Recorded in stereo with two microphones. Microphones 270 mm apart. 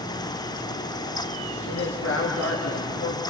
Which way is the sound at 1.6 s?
65° left (ahead or behind).